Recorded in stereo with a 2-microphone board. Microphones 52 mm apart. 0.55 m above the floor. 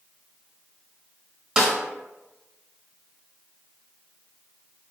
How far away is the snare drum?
About 0.8 m.